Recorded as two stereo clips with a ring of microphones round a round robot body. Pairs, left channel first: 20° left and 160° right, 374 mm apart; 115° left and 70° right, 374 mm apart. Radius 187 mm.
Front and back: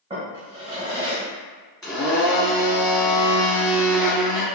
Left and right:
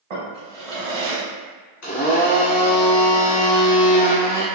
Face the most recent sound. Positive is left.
turn(degrees=100)